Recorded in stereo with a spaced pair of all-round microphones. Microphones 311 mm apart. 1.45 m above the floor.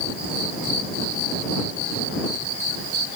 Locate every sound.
Only background noise.